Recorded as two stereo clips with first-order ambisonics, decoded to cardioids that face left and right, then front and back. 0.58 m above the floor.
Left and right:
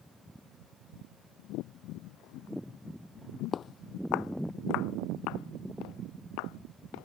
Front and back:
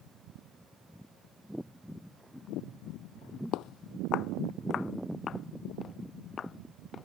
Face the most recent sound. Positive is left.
turn(degrees=70)